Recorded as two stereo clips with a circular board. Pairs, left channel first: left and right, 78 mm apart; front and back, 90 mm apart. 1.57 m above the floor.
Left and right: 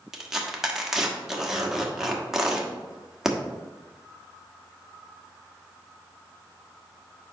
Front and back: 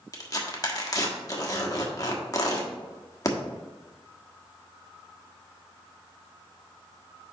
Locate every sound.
0.1 s tearing paper: 5° right, 1.2 m